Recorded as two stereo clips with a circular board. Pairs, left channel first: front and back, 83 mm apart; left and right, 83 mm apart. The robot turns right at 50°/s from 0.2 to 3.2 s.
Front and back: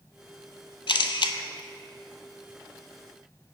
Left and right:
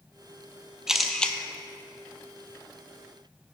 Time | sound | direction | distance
0.9 | a camera shutter | 5° right | 0.5 m